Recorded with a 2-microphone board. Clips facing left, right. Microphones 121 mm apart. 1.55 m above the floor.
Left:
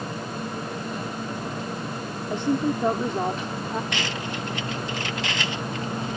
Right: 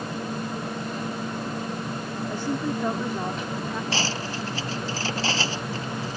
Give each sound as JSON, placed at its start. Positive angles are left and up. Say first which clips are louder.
{"t": 2.3, "sound": "a woman speaking", "louder": "left 5 dB", "side_deg": 25}
{"t": 3.9, "sound": "cutlery clinking", "louder": "right 1 dB", "side_deg": -35}